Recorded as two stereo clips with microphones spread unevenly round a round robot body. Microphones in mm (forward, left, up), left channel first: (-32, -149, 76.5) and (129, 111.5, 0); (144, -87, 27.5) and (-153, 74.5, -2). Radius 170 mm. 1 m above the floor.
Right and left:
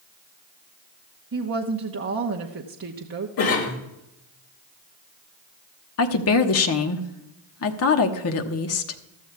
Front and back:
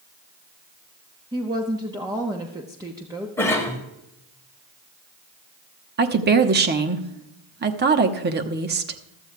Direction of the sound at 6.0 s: 165° right.